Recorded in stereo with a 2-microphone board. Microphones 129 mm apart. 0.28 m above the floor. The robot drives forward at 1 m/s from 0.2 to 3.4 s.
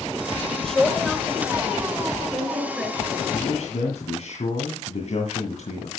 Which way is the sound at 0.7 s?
5° left (ahead or behind).